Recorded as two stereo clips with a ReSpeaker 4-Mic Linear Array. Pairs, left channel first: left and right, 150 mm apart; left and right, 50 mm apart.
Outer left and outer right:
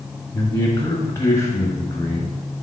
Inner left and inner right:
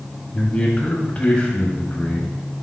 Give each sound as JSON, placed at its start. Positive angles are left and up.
{"t": 0.3, "sound": "a man speaking", "side_deg": 20, "distance_m": 1.3}